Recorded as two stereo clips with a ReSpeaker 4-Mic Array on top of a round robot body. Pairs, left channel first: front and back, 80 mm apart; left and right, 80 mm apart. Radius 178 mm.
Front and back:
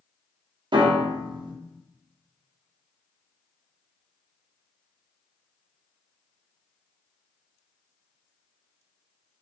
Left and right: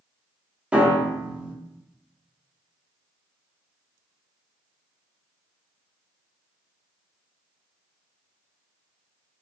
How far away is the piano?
About 0.6 m.